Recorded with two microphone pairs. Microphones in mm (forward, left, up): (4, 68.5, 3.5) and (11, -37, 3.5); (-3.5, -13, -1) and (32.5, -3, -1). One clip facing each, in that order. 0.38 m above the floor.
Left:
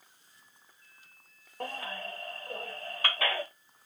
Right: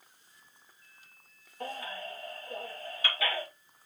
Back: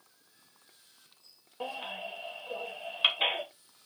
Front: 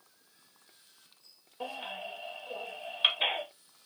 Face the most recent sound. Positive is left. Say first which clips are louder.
# left 1 dB, back 1 dB
turn(degrees=125)